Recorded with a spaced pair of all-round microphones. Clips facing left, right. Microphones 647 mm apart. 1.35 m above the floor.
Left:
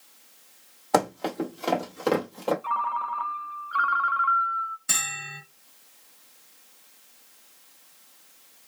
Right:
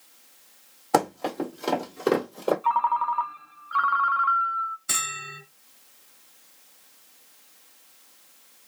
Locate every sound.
0.9 s running footsteps: centre (ahead or behind), 1.7 m; by 2.5 s 25° left (ahead or behind), 1.5 m
2.6 s a ringtone: 30° right (ahead or behind), 0.5 m
4.9 s a bell: 30° left (ahead or behind), 1.7 m